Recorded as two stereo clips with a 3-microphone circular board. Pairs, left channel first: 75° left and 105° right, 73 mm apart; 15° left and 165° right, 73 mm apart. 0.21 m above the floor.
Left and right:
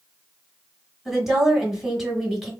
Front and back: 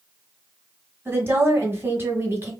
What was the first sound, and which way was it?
A woman speaking, 170° left.